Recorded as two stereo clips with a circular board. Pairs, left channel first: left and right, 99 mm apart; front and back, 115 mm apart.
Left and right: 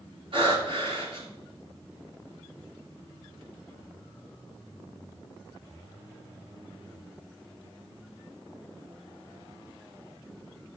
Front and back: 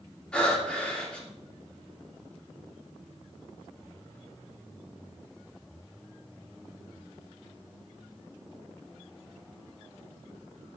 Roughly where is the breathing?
Right.